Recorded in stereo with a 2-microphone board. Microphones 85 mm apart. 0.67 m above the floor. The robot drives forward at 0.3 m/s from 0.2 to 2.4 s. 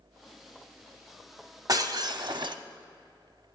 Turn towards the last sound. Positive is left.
turn(degrees=-65)  # may be behind; listen again after turning